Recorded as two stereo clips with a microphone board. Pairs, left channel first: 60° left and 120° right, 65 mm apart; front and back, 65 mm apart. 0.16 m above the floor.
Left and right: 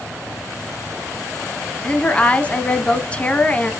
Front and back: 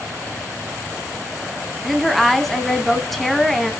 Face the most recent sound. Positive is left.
turn(degrees=75)